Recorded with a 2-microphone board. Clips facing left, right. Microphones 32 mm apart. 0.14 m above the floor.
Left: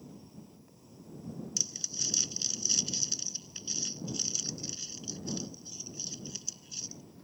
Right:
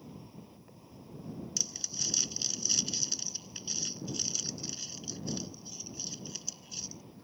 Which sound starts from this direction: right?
An insect, at 0.0 s.